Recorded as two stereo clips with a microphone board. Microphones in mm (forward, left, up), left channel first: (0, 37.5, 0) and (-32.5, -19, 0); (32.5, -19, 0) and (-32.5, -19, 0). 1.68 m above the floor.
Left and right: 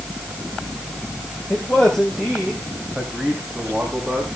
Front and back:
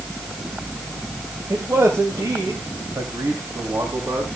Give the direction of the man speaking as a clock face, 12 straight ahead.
7 o'clock.